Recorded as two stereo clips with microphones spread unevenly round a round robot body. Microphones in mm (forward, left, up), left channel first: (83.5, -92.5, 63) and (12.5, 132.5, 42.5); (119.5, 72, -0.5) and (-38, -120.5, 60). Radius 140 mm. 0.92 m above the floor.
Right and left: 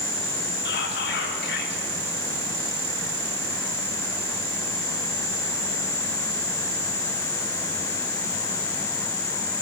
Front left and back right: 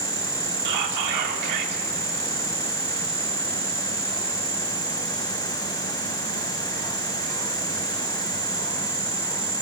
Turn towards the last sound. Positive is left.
turn(degrees=-125)